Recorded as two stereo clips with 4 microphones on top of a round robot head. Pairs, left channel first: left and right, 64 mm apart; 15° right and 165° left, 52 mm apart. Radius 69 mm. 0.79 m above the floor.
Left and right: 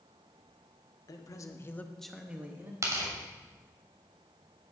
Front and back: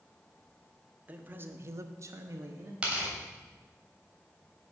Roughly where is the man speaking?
Left.